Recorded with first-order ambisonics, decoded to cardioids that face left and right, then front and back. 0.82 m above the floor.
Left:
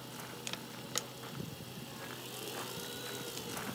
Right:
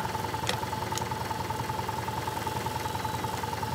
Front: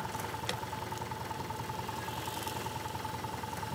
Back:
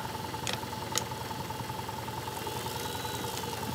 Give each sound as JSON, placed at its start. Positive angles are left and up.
{"t": 0.0, "sound": "an engine running", "azimuth_deg": -95}